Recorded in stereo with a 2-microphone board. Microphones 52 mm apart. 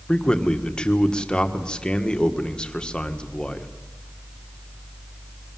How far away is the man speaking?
About 1.7 m.